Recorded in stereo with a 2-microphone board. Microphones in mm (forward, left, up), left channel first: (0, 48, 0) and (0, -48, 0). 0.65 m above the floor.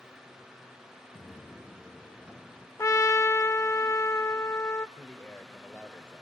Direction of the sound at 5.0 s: 20° left (ahead or behind).